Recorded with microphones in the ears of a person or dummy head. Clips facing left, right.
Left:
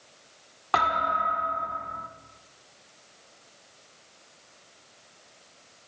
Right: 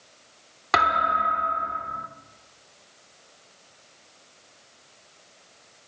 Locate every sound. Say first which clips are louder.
0.7 s a thud: right 2 dB; 20° right (ahead or behind), 1.0 m